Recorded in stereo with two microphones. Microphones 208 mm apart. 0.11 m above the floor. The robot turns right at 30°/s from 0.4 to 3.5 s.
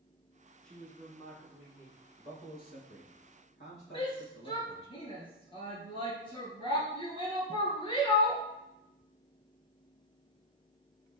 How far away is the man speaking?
About 4.5 m.